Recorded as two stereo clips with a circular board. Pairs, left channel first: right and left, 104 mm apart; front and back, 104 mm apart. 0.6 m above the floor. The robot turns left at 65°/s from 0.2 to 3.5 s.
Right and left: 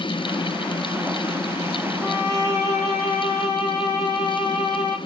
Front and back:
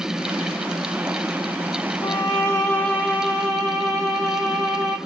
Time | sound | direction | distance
2.0 | a violin | 30° right | 0.9 m